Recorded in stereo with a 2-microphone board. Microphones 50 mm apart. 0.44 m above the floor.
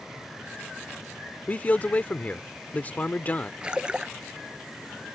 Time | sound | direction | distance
1.5 | a man speaking | 35° left (ahead or behind) | ?
3.6 | a splash | 20° right (ahead or behind) | ?